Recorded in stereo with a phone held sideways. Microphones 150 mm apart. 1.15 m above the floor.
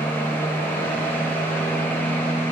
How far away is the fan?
About 0.8 m.